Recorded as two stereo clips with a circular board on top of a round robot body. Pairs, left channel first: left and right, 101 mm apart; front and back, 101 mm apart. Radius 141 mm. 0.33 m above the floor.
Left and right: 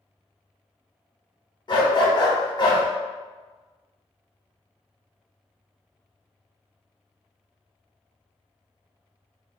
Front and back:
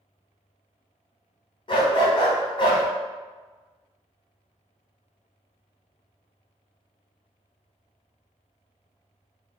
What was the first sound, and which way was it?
A dog barking, 45° left.